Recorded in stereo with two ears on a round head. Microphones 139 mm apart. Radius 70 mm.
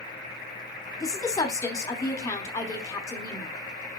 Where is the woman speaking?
20° left (ahead or behind), 1.0 m.